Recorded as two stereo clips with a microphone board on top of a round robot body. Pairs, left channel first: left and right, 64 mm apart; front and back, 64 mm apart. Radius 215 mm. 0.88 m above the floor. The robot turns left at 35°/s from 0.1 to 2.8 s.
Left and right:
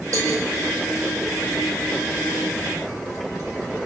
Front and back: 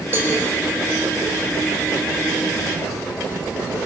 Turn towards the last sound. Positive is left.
turn(degrees=145)